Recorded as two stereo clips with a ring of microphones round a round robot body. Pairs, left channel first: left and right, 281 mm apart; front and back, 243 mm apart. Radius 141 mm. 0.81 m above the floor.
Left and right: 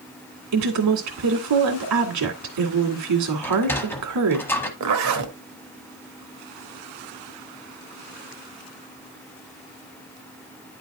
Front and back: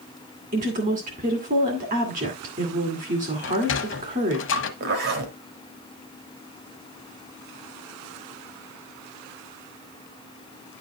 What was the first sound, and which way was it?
A woman speaking, 115° right.